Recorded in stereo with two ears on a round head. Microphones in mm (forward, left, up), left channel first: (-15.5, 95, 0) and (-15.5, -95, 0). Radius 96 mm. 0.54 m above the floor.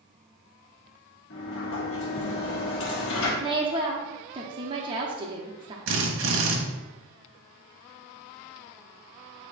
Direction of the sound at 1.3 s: 70° left (ahead or behind).